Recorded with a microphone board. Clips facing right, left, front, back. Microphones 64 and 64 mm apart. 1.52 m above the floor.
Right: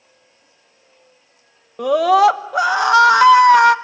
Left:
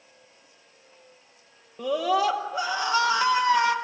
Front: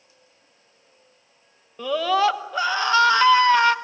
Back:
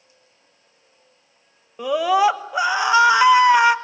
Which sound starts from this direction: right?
A scream, at 1.8 s.